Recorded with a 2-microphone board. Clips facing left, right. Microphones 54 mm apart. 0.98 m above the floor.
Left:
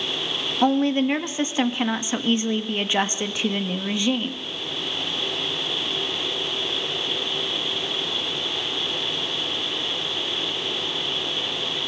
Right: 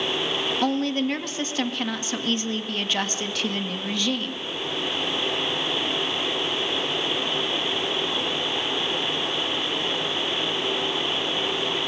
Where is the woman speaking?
20° left (ahead or behind), 1.6 m.